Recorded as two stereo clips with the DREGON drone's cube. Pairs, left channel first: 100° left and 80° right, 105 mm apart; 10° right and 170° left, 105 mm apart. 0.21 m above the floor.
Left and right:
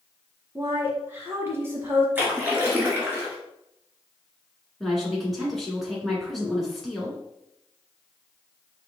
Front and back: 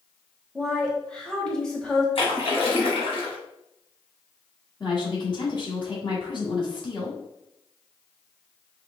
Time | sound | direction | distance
0.6 | a woman speaking | 85° right | 1.2 m
2.1 | a splash | 10° right | 1.5 m
4.8 | a woman speaking | 10° left | 1.6 m